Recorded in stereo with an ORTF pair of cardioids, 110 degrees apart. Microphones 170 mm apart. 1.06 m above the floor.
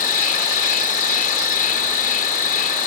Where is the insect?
55° left.